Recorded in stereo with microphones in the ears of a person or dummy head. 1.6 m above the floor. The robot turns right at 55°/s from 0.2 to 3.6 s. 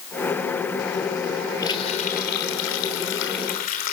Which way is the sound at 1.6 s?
25° left.